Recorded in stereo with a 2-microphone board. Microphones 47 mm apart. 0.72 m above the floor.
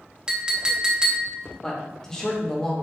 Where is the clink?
20° right (ahead or behind), 0.6 m.